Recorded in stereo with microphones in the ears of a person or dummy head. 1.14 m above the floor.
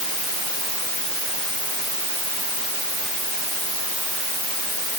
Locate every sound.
Only background noise.